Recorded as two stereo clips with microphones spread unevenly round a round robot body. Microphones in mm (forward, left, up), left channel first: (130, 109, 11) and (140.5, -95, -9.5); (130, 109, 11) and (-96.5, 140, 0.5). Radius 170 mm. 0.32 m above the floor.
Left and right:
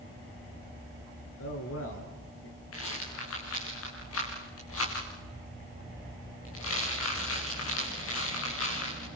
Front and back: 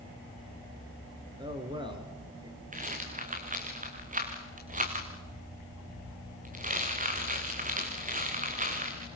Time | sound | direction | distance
1.4 | a man speaking | 100° left | 4 m
2.7 | a rattle | 115° left | 5 m